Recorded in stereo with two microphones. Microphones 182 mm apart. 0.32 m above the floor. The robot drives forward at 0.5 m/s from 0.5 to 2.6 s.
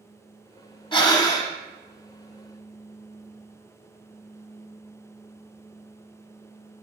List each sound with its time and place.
0.9 s breathing: 30° left (ahead or behind), 0.7 m; by 1.5 s 20° left (ahead or behind), 1.0 m